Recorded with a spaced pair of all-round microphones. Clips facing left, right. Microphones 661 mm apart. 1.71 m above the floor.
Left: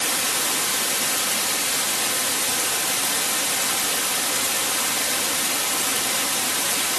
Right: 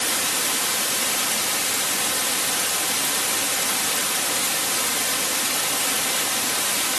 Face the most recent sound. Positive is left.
No sound to turn to.